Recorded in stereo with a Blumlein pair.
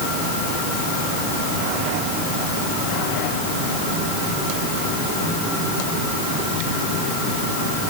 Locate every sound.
Only background noise.